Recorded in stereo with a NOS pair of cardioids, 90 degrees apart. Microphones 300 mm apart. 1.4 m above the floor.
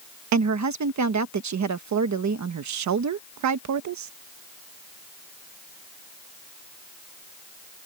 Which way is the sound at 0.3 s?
70° right.